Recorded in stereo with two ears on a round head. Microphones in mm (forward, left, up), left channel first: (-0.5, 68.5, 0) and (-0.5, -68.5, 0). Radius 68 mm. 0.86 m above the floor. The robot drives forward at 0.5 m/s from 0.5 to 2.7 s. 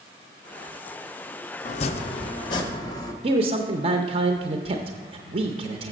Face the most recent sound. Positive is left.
turn(degrees=-40)  # may be behind; listen again after turning